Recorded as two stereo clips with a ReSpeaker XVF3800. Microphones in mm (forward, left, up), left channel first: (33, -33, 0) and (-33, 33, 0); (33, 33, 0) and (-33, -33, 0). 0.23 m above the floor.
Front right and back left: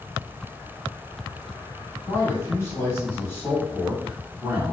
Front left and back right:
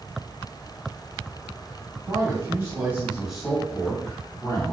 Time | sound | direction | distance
2.1 | a man speaking | 95° right | 1.8 m